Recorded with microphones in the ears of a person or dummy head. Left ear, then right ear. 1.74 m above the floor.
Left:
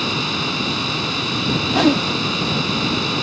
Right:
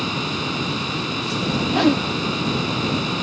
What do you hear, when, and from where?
0.0 s a fan: 5° left (ahead or behind)
1.7 s a whoosh: 5° left (ahead or behind)